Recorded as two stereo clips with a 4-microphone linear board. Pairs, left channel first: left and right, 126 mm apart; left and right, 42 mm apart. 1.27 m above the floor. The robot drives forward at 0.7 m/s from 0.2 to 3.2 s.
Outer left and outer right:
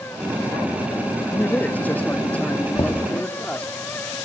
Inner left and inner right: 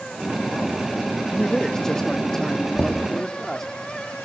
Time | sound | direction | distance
1.3 | a man speaking | 15° left (ahead or behind) | 1.5 m
2.8 | knocking | 35° left (ahead or behind) | 1.7 m